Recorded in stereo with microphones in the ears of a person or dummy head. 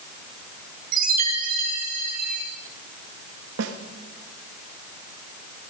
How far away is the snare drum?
About 1.8 m.